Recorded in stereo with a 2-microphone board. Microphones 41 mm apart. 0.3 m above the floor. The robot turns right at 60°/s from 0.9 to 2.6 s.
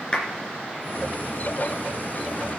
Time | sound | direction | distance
0.1 | a clap | 20° left (ahead or behind) | 3 m